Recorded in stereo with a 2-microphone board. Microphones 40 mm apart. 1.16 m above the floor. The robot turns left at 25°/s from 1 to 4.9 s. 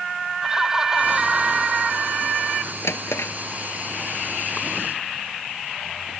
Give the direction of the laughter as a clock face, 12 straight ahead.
12 o'clock.